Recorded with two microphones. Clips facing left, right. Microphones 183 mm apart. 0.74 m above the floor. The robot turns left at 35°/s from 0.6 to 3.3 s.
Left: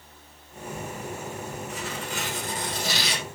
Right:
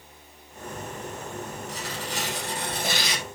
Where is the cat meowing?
No cat meowing in this recording.